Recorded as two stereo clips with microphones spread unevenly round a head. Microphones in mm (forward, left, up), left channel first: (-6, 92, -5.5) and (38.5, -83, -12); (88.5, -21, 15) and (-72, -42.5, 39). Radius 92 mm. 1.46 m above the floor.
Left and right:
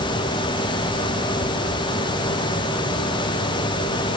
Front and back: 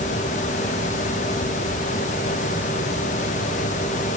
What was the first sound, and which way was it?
Only background noise.